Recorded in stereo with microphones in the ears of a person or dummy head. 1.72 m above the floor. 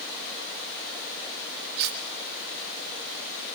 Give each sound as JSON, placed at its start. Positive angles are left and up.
{"t": 1.8, "sound": "cutlery clinking", "side_deg": -65, "distance_m": 2.0}